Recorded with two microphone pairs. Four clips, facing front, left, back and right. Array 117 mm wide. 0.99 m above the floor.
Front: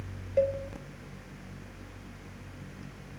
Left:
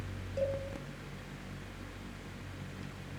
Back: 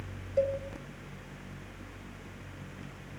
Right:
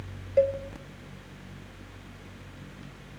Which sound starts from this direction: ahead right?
A cowbell, at 0.4 s.